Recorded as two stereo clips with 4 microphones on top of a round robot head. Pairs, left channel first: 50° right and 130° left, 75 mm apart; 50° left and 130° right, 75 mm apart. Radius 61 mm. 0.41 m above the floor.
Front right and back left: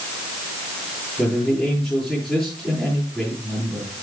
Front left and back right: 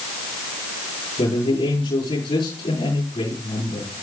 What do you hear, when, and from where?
1.2 s a man speaking: 45° left, 9 m